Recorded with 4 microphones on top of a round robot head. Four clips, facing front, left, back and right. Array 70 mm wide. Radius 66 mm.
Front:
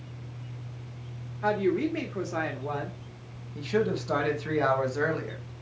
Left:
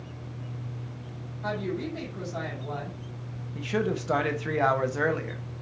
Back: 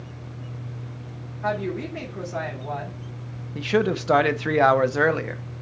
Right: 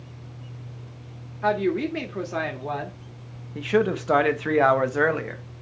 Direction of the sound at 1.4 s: 70° right.